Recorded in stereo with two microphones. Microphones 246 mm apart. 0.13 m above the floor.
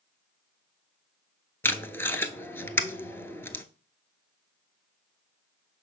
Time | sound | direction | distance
1.6 | tape being pulled | 10° left (ahead or behind) | 0.7 m